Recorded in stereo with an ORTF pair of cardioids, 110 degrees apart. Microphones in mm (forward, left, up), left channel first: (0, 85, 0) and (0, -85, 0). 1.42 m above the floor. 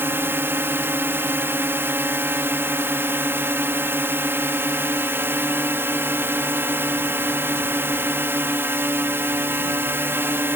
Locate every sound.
0.0 s a drone: 15° right